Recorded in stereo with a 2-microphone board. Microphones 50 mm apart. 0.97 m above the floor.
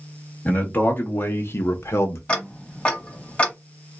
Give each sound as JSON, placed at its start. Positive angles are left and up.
{"t": 0.5, "sound": "a man speaking", "side_deg": 35, "distance_m": 1.5}
{"t": 2.3, "sound": "ticking", "side_deg": 25, "distance_m": 1.0}